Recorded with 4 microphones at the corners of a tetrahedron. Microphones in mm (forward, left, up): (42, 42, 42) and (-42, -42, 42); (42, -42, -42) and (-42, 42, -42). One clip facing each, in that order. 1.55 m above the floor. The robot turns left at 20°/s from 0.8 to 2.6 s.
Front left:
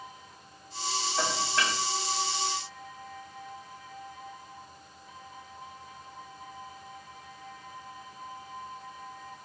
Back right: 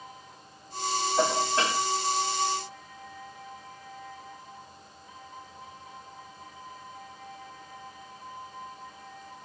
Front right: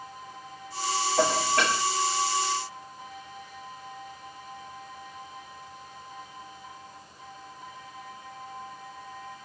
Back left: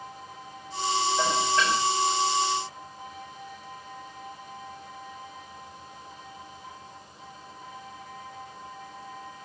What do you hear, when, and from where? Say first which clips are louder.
1.2 s dishes clattering: back right 5 dB, front right 4 dB; 65° right, 3.5 m; by 1.8 s 80° right, 3.5 m